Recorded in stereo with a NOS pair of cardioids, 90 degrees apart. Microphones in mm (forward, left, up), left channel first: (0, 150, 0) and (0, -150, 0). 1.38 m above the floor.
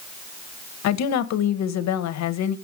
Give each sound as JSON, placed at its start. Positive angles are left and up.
{"t": 0.8, "sound": "a woman speaking", "azimuth_deg": 70, "distance_m": 1.0}